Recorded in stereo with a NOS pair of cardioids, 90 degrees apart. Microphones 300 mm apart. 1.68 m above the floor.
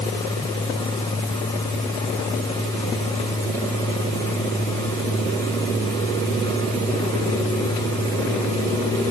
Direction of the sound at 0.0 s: 15° left.